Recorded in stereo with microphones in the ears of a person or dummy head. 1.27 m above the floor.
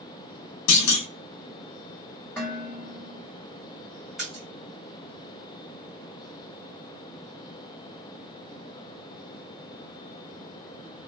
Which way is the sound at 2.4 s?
15° left (ahead or behind).